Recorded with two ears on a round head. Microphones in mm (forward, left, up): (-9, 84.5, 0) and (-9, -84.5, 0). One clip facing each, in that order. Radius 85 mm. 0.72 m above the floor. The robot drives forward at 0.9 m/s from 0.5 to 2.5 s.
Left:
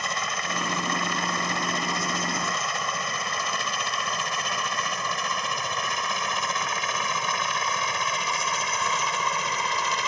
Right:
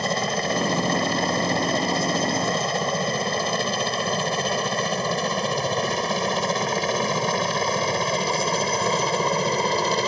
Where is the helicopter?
30° right (ahead or behind).